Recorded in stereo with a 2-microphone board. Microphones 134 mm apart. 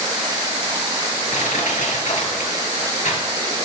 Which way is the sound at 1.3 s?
70° left (ahead or behind).